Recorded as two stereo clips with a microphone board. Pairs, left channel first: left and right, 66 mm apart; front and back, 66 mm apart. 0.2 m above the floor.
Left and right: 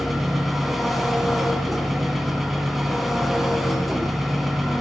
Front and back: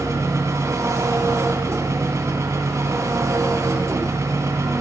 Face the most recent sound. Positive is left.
turn(degrees=-175)